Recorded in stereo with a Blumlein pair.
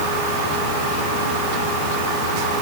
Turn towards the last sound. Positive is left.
No sound to turn to.